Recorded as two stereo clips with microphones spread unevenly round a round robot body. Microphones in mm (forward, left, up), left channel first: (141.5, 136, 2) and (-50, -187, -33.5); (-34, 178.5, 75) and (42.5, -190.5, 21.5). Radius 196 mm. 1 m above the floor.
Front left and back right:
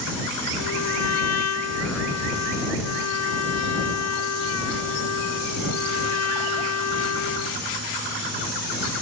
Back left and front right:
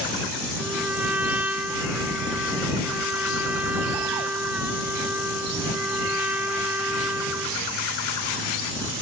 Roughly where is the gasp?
No gasp in this recording.